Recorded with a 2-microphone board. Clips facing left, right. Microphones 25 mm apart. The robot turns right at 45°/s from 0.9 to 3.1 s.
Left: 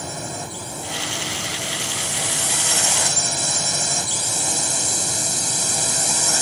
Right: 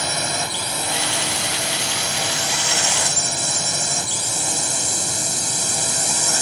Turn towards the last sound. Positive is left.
turn(degrees=0)